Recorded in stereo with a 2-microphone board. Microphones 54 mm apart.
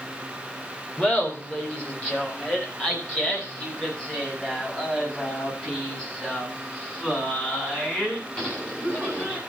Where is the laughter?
25° left (ahead or behind), 3 m.